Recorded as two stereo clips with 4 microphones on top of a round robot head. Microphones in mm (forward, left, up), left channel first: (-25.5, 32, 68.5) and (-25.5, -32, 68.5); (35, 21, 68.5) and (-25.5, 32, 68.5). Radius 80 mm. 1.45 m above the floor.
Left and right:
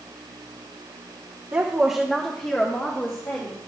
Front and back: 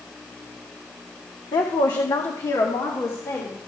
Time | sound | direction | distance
1.5 | a woman speaking | 25° right | 1.1 m